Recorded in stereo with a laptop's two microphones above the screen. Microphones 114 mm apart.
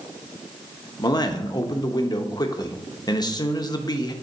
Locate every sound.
1.0 s a man speaking: 35° left (ahead or behind), 0.8 m